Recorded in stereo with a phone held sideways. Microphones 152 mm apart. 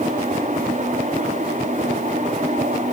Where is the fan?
55° right (ahead or behind), 4.5 m.